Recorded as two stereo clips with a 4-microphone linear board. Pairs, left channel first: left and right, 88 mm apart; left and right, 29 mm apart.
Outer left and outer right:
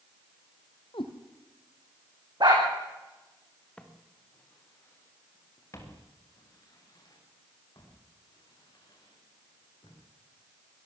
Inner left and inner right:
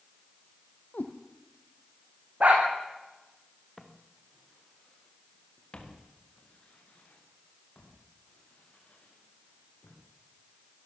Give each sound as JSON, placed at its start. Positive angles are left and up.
{"t": 0.9, "sound": "a cat meowing", "side_deg": 75, "distance_m": 2.5}
{"t": 2.4, "sound": "a dog barking", "side_deg": -55, "distance_m": 6.0}
{"t": 3.8, "sound": "footsteps", "side_deg": 10, "distance_m": 3.0}